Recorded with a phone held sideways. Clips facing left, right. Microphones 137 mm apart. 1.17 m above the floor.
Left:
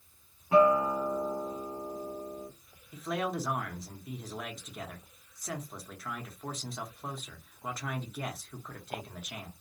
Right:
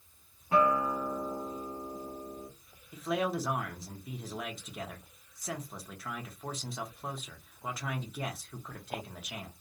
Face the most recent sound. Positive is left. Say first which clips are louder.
# right 2 dB
turn(degrees=-5)  # may be behind; listen again after turning